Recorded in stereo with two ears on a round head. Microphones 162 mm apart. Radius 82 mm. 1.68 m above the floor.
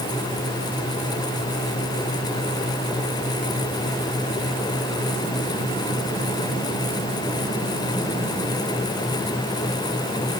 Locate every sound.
Only background noise.